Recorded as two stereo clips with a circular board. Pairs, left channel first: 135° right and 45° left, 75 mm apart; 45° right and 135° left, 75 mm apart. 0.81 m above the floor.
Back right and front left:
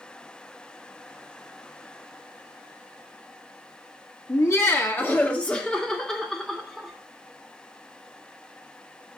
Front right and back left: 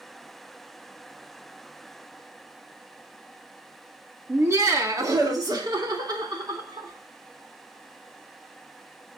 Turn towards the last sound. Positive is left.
turn(degrees=135)